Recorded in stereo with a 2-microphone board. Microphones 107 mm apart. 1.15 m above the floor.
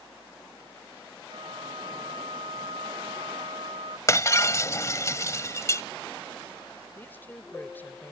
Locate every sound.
1.3 s a flute: 65° right (ahead or behind)
4.1 s breaking glass: 30° left (ahead or behind)
7.0 s a woman speaking: 20° left (ahead or behind)